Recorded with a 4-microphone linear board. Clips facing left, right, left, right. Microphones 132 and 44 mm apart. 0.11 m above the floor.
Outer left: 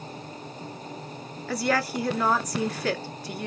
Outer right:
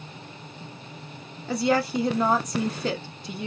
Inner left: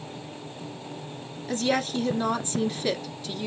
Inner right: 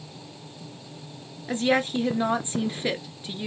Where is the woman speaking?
25° right (ahead or behind), 1.3 m.